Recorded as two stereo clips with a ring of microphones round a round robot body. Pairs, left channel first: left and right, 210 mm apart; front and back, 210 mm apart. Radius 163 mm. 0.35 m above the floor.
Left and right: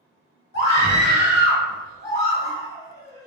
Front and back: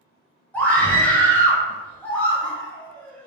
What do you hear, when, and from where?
0.5 s a scream: 85° left, 1.5 m